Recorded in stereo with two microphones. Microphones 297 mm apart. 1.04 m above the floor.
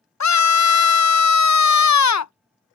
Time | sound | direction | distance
0.2 | a scream | 65° left (ahead or behind) | ?